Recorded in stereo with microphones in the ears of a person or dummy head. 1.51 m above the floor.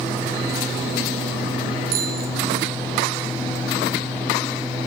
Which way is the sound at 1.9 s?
60° right (ahead or behind).